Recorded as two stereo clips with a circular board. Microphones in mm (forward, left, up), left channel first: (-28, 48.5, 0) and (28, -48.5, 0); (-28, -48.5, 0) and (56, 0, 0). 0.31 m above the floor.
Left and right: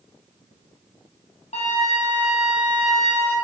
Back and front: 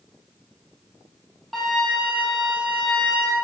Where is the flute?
120° left, 1.6 m.